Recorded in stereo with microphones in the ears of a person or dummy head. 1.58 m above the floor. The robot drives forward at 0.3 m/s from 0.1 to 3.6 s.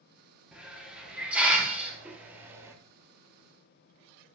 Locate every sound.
0.5 s a hiss: 10° right (ahead or behind), 1.5 m; by 2.8 s 20° right (ahead or behind), 0.9 m